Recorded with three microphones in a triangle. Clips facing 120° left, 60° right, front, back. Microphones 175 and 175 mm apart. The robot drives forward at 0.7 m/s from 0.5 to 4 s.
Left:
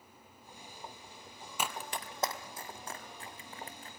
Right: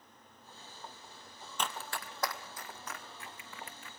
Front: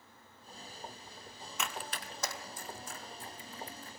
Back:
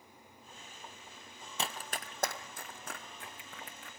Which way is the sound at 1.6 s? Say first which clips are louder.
Left 1 dB, back 1 dB; 165° right.